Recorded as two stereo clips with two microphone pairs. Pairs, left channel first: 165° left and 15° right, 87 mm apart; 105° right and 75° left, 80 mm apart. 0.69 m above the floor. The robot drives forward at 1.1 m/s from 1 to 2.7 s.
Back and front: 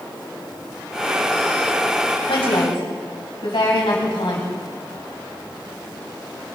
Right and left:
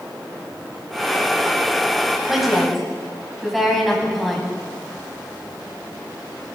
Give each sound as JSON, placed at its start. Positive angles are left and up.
{"t": 2.3, "sound": "a woman speaking", "azimuth_deg": 160, "distance_m": 4.0}